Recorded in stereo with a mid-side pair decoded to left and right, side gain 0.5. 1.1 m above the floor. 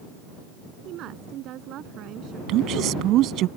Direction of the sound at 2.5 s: 70° right.